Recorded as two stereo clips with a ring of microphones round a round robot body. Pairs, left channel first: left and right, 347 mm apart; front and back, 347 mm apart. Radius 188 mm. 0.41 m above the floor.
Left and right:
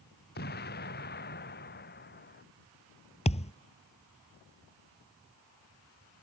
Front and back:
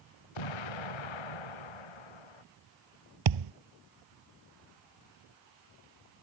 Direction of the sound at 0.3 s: 25° left.